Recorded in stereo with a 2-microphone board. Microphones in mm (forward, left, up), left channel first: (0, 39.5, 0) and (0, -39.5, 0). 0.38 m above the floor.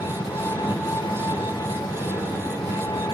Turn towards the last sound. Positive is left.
turn(degrees=75)  # may be behind; listen again after turning